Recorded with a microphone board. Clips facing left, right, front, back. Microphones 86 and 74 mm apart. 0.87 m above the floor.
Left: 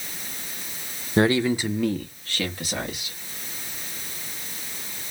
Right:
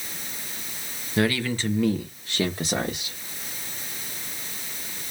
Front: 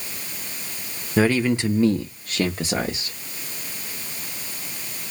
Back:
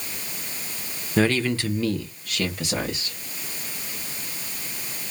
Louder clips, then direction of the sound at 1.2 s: Left 4 dB, front 2 dB; 70° left.